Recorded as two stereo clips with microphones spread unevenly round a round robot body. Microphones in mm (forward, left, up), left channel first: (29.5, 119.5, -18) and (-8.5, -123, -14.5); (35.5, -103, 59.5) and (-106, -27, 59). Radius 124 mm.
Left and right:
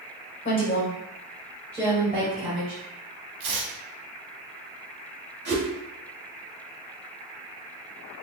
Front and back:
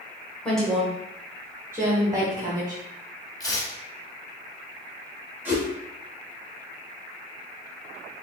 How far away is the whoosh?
About 1.9 m.